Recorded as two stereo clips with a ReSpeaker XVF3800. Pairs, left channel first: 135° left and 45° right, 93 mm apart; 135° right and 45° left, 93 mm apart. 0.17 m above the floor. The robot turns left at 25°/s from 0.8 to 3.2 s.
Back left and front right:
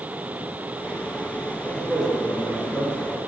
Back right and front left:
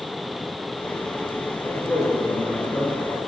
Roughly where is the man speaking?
Behind right.